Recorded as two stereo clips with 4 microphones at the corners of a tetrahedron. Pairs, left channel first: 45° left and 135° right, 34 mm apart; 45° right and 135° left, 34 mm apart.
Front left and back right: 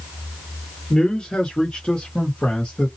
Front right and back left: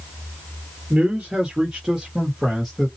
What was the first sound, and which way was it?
A man speaking, 85° left.